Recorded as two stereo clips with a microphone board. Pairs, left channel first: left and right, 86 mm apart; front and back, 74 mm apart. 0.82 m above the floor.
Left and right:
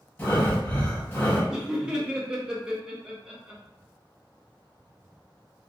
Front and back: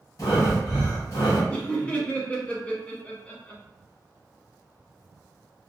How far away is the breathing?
About 0.9 m.